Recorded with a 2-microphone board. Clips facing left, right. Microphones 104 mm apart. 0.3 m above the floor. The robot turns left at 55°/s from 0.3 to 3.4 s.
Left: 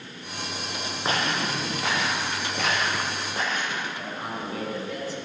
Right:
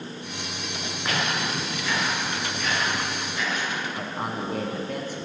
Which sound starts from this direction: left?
Footsteps, at 1.1 s.